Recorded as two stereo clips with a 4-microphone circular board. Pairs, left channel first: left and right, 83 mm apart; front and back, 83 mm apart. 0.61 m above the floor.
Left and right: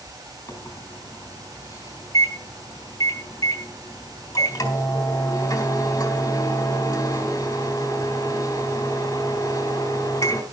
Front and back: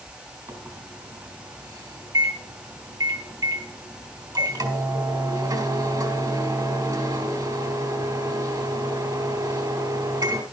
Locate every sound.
0.5 s a microwave: 140° left, 3.5 m